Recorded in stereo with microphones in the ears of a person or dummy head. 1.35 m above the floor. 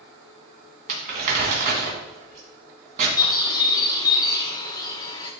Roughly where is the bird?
Left.